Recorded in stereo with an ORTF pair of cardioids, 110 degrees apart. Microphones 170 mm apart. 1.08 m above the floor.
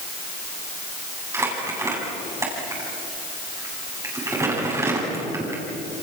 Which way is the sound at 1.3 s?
15° right.